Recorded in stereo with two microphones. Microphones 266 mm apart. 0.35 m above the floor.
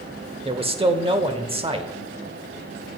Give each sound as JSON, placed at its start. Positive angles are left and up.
{"t": 0.5, "sound": "a man speaking", "side_deg": -20, "distance_m": 0.8}